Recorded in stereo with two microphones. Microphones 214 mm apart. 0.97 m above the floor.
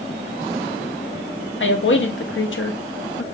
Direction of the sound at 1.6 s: 65° left (ahead or behind).